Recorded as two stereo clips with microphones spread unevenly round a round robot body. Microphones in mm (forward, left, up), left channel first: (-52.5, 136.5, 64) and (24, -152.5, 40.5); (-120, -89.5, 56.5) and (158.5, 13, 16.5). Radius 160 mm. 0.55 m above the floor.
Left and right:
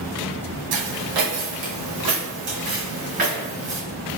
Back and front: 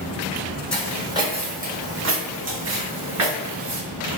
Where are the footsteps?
75° right, 1.2 m; by 3.8 s straight ahead, 2 m.